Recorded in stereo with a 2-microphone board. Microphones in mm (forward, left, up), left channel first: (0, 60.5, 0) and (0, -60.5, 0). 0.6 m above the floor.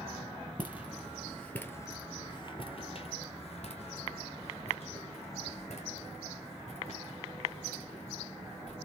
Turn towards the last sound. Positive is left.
turn(degrees=60)  # may be behind; listen again after turning